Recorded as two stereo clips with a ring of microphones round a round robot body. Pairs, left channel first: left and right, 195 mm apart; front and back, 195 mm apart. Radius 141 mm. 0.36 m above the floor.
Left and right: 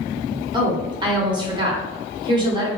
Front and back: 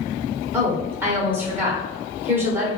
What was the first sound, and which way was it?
A woman speaking, 115° right.